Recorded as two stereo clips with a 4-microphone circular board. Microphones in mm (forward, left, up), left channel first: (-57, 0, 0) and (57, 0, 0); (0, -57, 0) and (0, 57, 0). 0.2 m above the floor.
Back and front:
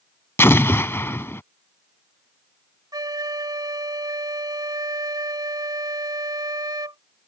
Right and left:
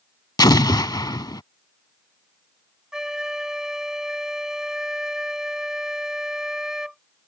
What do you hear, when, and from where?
0.4 s an explosion: 120° right
2.9 s a flute: 10° left